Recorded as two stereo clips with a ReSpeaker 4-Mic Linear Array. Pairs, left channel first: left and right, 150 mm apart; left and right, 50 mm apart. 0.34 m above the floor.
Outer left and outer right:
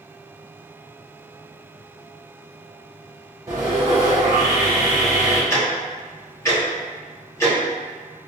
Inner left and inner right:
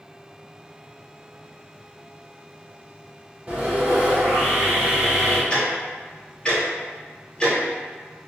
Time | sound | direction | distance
3.5 | sawing | 25° right (ahead or behind) | 1.5 m
5.5 | ticking | 20° left (ahead or behind) | 1.0 m